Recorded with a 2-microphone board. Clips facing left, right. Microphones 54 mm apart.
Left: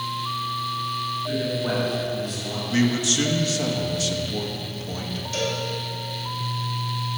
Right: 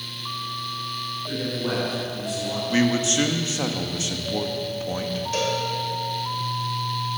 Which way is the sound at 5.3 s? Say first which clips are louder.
Right 2 dB; 40° right (ahead or behind).